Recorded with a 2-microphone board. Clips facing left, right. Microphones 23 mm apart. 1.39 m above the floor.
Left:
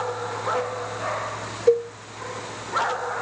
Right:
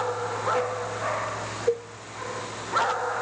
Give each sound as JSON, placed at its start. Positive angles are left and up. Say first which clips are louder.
{"t": 1.7, "sound": "a cowbell", "louder": "left 8 dB", "side_deg": 45, "distance_m": 3.0}